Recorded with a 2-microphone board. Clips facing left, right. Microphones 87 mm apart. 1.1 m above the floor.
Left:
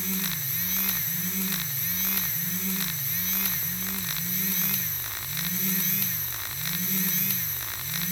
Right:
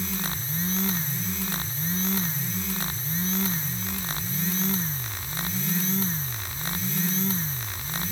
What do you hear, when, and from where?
Only background noise.